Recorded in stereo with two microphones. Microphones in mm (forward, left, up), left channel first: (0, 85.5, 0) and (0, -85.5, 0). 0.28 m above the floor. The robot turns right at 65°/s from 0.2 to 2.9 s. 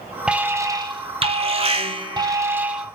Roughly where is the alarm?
Behind.